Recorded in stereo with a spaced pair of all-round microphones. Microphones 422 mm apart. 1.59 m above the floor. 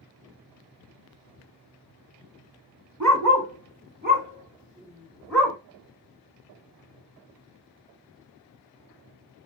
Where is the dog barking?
40° right (ahead or behind), 1.6 m; by 5.6 s 5° left (ahead or behind), 1.9 m.